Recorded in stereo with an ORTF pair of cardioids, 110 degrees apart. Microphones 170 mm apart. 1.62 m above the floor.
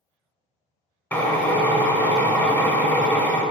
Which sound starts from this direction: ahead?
A drill, at 1.1 s.